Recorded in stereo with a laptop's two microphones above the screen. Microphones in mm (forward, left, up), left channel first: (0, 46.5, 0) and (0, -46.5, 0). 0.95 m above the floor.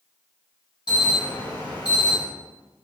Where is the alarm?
50° left (ahead or behind), 4 m.